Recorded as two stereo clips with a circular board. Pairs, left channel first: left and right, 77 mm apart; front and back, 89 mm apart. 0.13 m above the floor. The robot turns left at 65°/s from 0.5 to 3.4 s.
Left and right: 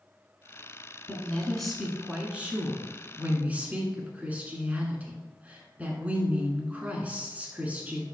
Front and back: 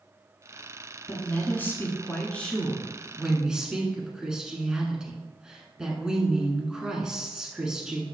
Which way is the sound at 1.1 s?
40° left.